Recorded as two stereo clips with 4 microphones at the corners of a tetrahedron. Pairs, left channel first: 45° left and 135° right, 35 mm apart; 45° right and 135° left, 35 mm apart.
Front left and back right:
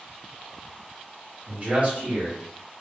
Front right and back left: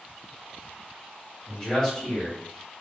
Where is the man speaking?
100° right, 1.6 m.